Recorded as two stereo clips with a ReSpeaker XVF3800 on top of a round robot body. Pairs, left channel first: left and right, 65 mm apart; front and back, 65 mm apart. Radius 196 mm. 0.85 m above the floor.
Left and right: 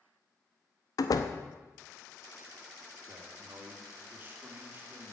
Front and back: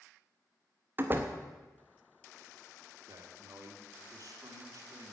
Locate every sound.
1.0 s a door slam: 120° left, 0.8 m
3.1 s a man speaking: 150° right, 2.5 m